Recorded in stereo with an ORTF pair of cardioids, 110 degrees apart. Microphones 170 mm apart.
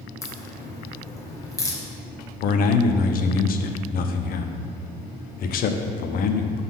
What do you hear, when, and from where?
0.2 s a crack: 20° left, 1.5 m
2.4 s a man speaking: 60° left, 0.8 m